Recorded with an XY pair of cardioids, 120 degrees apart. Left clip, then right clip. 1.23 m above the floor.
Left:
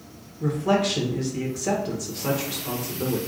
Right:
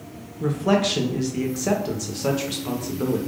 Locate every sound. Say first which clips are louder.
0.4 s a man speaking: right 1 dB; 30° right, 0.9 m